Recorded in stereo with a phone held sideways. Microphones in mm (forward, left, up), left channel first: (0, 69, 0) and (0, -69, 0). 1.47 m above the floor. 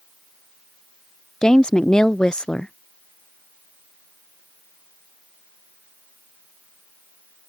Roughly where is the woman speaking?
Centre.